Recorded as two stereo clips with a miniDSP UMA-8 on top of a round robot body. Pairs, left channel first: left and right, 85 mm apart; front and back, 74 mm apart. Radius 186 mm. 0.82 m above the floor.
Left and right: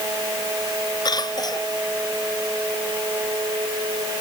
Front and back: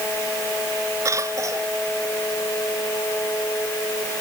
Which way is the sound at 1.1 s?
130° left.